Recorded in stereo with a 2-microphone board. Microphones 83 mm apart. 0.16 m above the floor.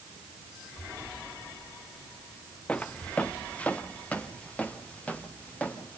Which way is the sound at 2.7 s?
15° left (ahead or behind).